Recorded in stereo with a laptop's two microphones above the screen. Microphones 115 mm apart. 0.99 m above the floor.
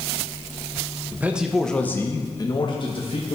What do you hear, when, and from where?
1.1 s a man speaking: 20° right (ahead or behind), 0.8 m; by 3.4 s 55° left (ahead or behind), 1.3 m